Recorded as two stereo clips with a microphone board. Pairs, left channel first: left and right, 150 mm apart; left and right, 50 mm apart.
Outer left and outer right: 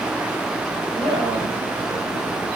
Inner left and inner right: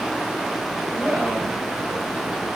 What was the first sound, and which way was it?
A man speaking, 20° right (ahead or behind).